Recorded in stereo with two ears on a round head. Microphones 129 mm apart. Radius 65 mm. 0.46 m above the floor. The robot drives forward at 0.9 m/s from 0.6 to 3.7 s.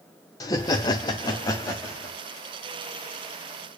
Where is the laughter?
25° left (ahead or behind), 0.8 m; by 2.1 s 15° left (ahead or behind), 1.3 m.